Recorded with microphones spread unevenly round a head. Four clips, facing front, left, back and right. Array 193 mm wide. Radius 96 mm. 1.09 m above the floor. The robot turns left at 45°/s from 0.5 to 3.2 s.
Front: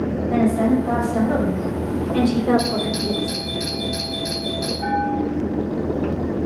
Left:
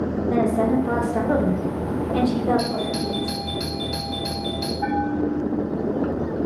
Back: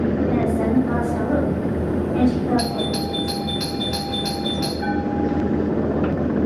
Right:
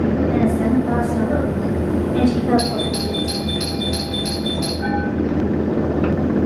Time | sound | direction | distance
0.3 | a woman speaking | 115° left | 5 m
2.6 | a doorbell | straight behind | 4 m
4.8 | a bell | 100° left | 2.5 m